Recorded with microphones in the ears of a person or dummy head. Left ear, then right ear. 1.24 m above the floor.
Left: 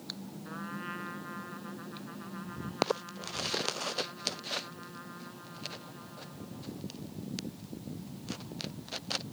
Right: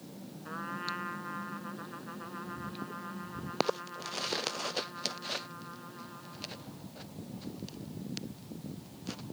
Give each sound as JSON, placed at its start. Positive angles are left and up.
{"t": 0.5, "sound": "a trumpet", "side_deg": -20}